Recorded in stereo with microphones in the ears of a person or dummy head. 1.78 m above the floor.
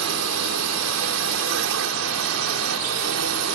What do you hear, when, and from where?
0.0 s a drone: 75° right (ahead or behind); by 3.5 s 70° right (ahead or behind)